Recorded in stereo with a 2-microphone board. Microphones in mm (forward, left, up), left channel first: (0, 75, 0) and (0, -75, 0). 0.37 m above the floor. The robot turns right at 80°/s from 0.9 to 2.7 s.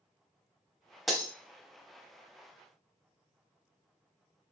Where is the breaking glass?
Centre (ahead or behind), 0.6 m; by 1.3 s 15° left (ahead or behind), 0.6 m.